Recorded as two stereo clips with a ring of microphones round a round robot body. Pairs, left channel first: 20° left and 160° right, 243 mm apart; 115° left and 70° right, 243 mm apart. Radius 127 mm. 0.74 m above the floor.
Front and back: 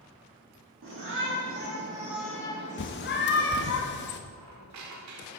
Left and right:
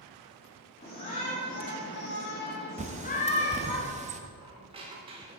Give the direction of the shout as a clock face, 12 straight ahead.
6 o'clock.